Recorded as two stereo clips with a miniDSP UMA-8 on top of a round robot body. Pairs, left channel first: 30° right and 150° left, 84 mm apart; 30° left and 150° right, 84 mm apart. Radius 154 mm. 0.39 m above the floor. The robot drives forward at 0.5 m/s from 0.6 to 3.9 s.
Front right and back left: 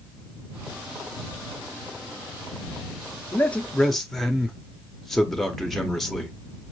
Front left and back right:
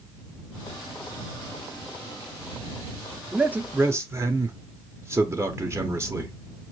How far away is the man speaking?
About 0.9 m.